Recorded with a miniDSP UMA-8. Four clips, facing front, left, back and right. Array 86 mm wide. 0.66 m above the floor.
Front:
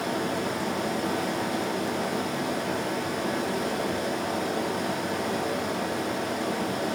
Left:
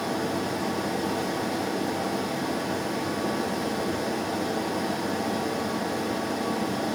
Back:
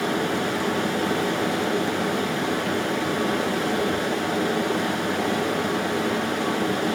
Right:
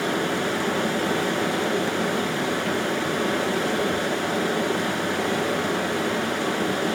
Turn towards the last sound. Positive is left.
turn(degrees=-120)